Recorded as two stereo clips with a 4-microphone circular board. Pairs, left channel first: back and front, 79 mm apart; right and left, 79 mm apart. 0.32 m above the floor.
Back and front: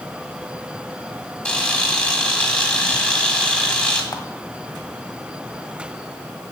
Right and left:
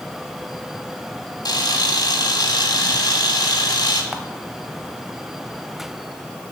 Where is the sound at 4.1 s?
175° left, 0.9 m.